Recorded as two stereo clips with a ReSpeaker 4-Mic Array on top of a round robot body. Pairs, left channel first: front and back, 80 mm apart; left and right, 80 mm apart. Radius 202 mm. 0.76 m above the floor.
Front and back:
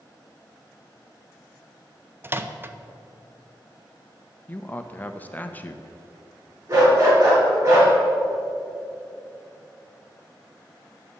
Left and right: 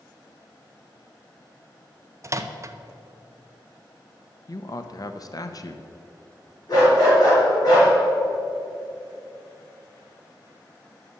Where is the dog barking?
130° left, 4.5 m.